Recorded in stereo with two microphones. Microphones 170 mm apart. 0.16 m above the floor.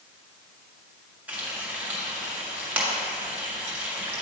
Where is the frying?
10° right (ahead or behind), 2 m.